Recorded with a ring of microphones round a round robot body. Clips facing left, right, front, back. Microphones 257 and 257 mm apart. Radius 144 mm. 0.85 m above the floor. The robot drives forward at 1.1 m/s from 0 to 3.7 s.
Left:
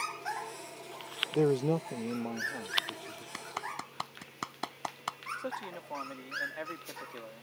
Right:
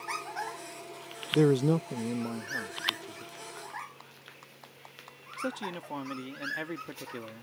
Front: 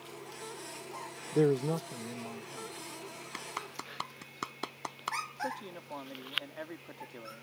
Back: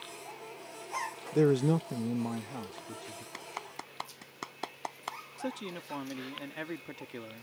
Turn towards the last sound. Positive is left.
turn(degrees=-130)